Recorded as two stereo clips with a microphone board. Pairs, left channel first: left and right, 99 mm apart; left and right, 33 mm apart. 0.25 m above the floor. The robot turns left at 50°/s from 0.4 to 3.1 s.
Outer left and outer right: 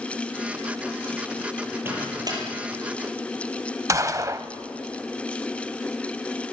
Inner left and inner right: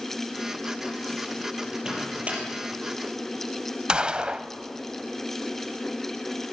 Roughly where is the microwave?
Centre.